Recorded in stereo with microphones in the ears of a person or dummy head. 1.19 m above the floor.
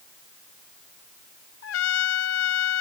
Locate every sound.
1.6 s a trumpet: 75° left (ahead or behind)